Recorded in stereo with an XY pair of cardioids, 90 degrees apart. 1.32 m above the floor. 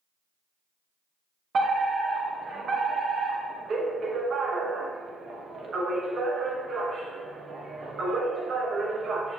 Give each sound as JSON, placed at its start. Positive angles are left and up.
{"t": 1.5, "sound": "a fire alarm", "azimuth_deg": -55, "distance_m": 2.5}